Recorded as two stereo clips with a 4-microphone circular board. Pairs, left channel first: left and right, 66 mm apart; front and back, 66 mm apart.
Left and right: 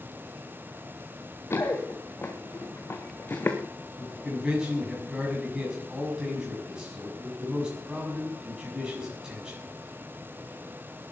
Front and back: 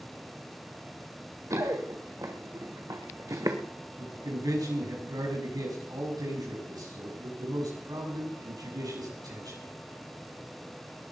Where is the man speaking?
170° right, 6.5 m.